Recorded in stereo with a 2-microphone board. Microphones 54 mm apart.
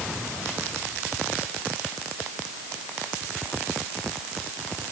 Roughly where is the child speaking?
No child speaking in this recording.